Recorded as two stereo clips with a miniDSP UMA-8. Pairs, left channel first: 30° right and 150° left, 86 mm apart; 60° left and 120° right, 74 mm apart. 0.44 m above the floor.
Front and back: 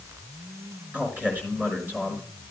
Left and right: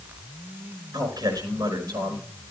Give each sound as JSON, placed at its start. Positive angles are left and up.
{"t": 0.9, "sound": "a man speaking", "azimuth_deg": -140, "distance_m": 5.0}